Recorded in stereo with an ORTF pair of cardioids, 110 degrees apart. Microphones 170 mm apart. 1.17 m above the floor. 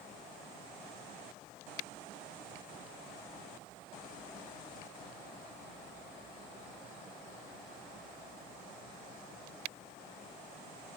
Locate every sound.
Only background noise.